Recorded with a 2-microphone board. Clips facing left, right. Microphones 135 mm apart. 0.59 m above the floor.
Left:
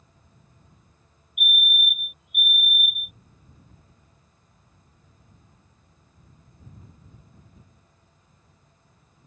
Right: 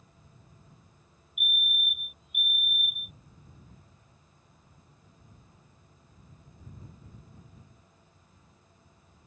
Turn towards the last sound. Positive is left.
turn(degrees=20)  # may be behind; listen again after turning